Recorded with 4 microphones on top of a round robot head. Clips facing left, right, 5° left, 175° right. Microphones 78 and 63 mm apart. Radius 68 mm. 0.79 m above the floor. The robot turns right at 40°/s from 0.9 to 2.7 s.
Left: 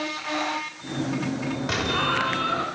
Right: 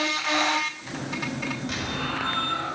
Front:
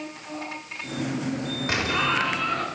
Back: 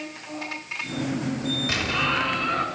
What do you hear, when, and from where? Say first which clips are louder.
1.7 s an explosion: left 5 dB, front 2 dB; 60° left, 4 m; by 2.7 s 100° left, 4 m